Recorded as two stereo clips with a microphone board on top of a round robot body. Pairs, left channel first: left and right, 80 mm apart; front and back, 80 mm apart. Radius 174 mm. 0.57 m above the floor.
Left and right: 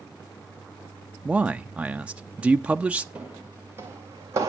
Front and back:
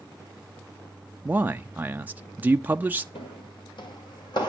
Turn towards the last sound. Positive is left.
turn(degrees=-35)